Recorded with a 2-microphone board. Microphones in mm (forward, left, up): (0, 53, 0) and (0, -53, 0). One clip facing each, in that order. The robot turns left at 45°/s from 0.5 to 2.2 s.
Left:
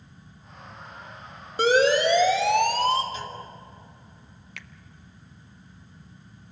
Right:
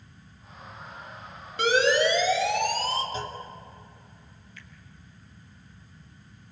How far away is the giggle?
I don't hear a giggle.